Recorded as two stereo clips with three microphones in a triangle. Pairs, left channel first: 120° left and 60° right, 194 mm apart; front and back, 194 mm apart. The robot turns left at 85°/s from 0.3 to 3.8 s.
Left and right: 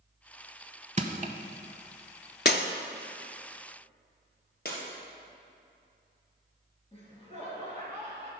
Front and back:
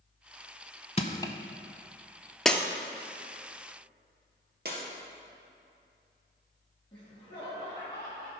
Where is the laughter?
65° left, 3.5 m.